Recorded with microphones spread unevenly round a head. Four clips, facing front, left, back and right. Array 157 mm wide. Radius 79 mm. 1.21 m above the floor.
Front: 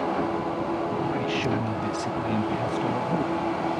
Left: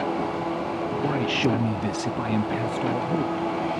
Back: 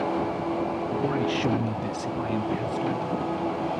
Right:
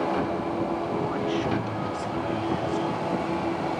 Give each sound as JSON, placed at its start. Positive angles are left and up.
{"t": 1.0, "sound": "a man speaking", "azimuth_deg": 110, "distance_m": 0.8}